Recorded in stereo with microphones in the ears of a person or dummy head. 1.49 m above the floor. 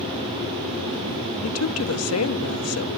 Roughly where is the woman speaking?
Left.